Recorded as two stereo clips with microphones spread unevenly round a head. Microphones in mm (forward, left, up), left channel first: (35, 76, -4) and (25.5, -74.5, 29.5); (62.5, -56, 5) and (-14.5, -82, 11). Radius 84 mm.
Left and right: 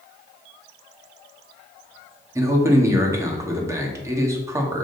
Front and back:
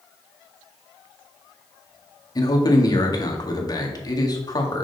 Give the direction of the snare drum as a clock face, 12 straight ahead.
No snare drum in this recording.